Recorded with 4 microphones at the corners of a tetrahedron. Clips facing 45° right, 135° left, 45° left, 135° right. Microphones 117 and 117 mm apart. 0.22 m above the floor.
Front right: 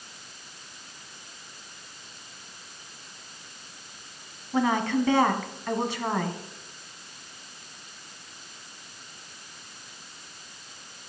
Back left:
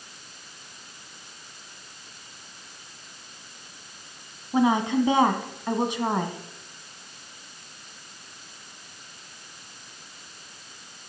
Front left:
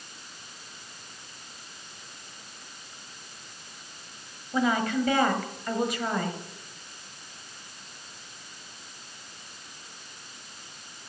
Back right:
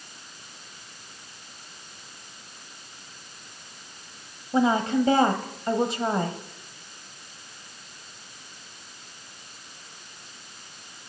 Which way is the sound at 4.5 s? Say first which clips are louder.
Back left 3 dB, back right 4 dB; 170° right.